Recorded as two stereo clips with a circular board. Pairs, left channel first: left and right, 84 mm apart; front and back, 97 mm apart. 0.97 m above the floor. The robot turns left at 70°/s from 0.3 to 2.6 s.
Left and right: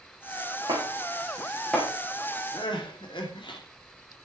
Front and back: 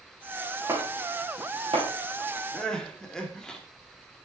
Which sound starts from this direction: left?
Crying, at 2.5 s.